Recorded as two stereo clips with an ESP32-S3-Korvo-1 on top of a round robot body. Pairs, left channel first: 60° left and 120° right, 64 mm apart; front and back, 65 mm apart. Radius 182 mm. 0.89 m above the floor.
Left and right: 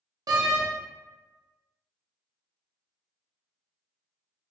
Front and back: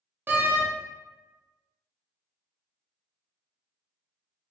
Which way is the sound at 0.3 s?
120° right.